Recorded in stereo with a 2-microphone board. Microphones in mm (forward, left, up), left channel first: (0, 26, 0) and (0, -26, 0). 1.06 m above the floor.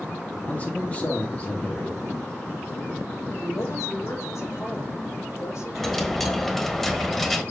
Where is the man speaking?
30° left (ahead or behind), 1.9 m.